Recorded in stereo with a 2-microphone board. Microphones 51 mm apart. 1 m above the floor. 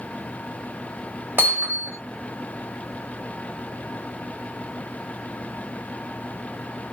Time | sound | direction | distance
1.4 | hammering | 55° right (ahead or behind) | 1.8 m